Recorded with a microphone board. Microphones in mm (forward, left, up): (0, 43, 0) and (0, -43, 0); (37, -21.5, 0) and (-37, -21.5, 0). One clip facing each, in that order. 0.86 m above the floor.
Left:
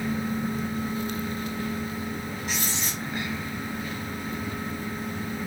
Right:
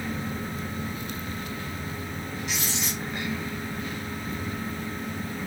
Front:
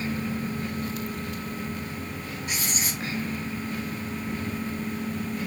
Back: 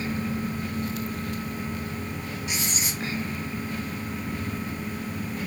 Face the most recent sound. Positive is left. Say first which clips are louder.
# even, front 1 dB
turn(degrees=45)